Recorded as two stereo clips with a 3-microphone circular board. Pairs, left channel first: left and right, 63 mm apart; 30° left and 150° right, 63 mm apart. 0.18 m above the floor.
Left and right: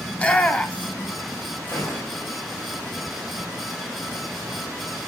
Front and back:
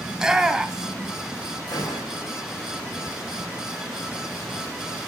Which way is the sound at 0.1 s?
140° left.